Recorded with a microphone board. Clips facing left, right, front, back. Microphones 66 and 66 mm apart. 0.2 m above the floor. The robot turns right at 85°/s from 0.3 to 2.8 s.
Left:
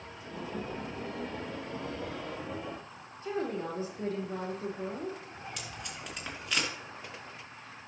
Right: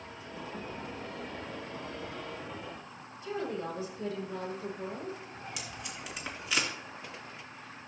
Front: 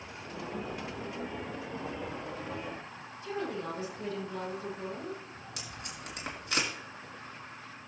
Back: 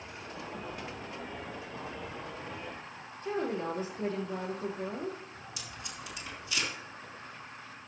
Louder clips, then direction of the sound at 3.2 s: Left 2 dB, back 3 dB; 140° left.